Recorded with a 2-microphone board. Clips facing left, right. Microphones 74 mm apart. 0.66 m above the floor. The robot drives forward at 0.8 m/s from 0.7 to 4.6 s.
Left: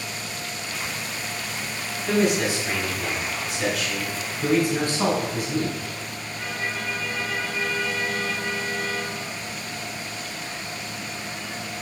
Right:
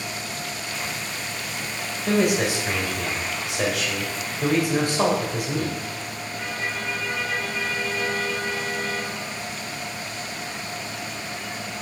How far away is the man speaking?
About 3 m.